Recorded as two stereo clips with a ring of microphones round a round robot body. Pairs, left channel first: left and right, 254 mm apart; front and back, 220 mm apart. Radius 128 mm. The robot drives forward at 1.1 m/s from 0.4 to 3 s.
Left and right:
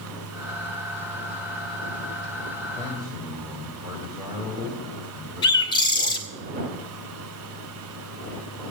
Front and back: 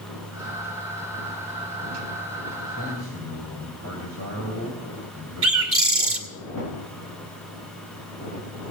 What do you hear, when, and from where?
2.7 s a man speaking: 165° right, 3 m
5.4 s a bird: 165° left, 2 m